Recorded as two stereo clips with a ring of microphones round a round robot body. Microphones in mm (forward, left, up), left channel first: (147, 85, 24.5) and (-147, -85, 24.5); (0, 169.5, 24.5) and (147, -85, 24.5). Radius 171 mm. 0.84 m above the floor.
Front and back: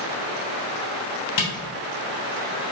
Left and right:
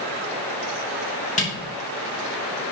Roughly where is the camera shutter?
Ahead left.